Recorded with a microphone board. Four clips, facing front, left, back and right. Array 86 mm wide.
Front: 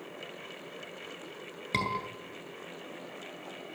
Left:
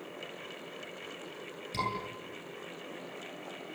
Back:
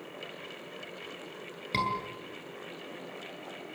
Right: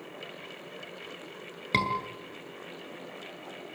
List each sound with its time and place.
1.7 s a scream: 80° right, 8 m